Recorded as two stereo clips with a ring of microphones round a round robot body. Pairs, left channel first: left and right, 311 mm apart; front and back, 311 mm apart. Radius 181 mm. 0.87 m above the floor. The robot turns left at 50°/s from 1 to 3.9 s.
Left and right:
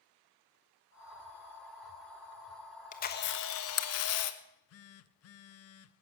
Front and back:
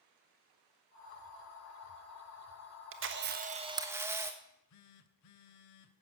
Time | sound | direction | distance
2.9 | a camera shutter | 150° left | 1.2 m
4.4 | a phone buzzing | 45° left | 0.7 m